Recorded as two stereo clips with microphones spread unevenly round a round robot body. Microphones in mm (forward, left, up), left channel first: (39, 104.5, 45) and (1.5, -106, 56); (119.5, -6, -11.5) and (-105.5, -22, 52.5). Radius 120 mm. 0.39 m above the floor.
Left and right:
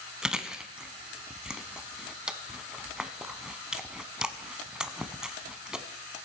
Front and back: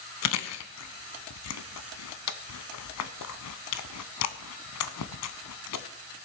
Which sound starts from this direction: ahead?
Chewing, at 0.2 s.